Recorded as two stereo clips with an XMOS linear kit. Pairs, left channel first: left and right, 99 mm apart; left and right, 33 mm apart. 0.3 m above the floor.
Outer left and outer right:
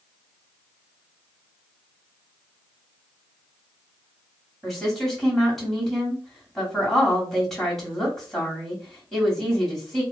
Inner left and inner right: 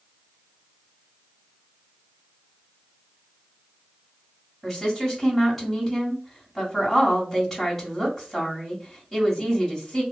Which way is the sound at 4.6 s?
5° left (ahead or behind).